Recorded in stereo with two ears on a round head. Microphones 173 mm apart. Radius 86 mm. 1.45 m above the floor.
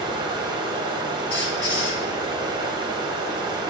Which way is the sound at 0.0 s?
20° right (ahead or behind).